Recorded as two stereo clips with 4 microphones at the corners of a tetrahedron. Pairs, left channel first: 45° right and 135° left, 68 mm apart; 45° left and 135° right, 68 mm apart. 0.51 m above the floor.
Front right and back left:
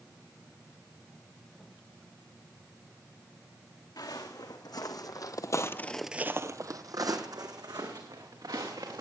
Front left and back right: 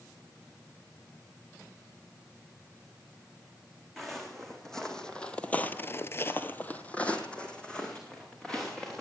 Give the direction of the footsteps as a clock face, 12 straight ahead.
1 o'clock.